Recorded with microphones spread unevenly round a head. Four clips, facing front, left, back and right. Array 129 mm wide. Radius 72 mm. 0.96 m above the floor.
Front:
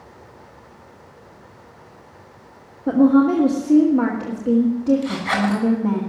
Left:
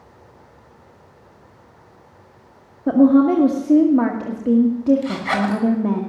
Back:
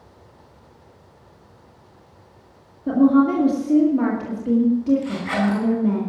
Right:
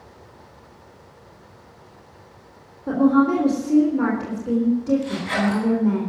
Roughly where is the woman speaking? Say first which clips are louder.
Left 4 dB, front 1 dB; left.